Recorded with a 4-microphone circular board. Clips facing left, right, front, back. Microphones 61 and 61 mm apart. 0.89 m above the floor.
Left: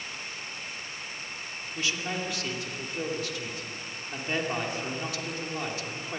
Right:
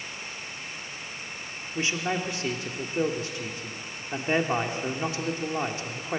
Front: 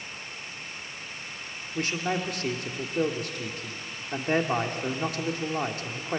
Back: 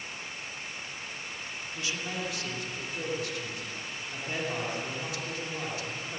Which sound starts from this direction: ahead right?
A man speaking, at 1.8 s.